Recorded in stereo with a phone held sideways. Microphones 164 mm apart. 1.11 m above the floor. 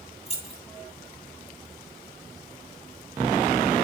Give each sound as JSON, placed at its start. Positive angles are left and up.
{"t": 0.3, "sound": "keys jangling", "side_deg": 40, "distance_m": 1.2}